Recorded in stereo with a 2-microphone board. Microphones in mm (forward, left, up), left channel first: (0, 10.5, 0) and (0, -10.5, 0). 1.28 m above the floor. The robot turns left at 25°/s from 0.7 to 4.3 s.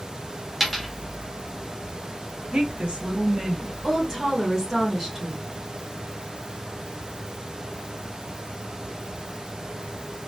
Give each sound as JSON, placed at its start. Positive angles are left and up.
{"t": 0.6, "sound": "a dropped coin", "side_deg": 0, "distance_m": 0.9}
{"t": 2.5, "sound": "a woman speaking", "azimuth_deg": -105, "distance_m": 0.9}
{"t": 3.8, "sound": "a woman speaking", "side_deg": -20, "distance_m": 1.3}